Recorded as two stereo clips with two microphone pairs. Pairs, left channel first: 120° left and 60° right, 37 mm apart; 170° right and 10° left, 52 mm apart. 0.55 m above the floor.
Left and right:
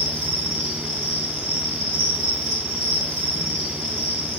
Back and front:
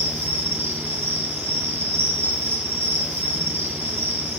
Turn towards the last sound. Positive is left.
turn(degrees=45)